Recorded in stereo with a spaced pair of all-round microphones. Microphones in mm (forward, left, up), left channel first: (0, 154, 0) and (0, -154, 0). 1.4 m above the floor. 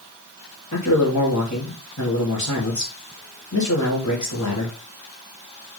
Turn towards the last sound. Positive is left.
turn(degrees=65)  # may be behind; listen again after turning